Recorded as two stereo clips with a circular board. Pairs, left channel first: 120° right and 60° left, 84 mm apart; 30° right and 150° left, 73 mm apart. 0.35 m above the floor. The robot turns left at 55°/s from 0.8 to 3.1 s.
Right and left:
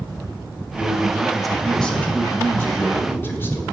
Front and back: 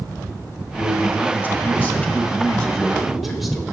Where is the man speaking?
5° left, 1.4 m; by 3.6 s 125° right, 1.4 m.